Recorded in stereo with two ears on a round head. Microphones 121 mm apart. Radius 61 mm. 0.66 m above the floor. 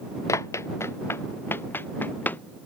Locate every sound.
0.3 s running footsteps: 20° left (ahead or behind); by 2.4 s 10° left (ahead or behind)